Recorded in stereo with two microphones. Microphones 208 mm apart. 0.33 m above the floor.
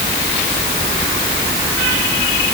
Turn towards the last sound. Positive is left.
No sound to turn to.